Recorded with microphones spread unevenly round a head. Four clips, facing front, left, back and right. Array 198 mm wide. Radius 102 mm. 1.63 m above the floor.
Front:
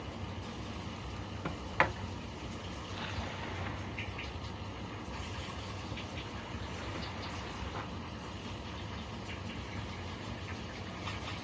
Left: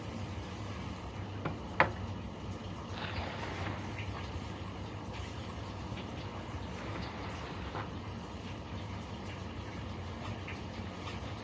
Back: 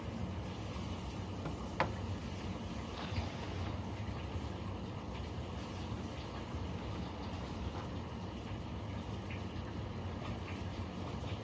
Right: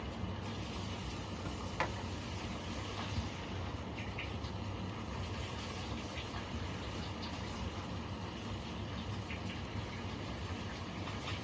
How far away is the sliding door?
About 0.8 m.